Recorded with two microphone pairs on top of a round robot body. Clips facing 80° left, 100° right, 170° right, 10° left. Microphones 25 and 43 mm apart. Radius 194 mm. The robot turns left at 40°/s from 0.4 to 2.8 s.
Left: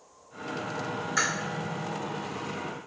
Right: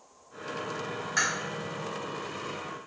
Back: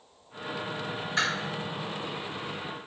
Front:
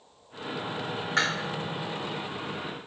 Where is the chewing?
20° right, 1.3 m; by 1.3 s 25° right, 1.3 m.